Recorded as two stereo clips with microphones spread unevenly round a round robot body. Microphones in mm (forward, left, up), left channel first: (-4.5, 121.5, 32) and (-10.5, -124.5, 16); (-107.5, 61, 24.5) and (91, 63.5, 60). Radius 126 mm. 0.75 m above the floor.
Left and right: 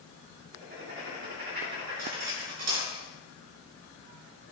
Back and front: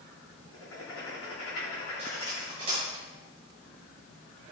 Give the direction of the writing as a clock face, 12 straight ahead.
5 o'clock.